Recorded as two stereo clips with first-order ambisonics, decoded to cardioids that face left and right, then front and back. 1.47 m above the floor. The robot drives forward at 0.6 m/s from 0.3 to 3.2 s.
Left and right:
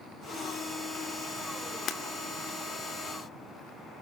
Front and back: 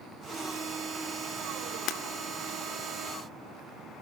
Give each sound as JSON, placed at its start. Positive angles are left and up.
{"t": 1.9, "sound": "breaking glass", "azimuth_deg": 35, "distance_m": 1.7}